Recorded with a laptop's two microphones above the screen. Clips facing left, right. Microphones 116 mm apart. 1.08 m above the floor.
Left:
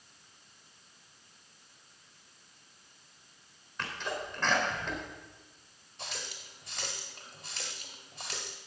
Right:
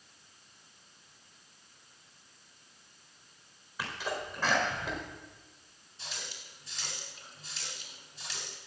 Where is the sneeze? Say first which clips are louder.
Right 1 dB; 10° right (ahead or behind), 4 m.